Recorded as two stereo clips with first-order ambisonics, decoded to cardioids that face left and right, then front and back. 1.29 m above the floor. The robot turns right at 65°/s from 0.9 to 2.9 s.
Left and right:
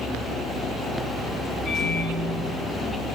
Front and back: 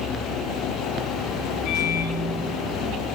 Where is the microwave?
35° left, 3 m; by 3.0 s 115° left, 3 m.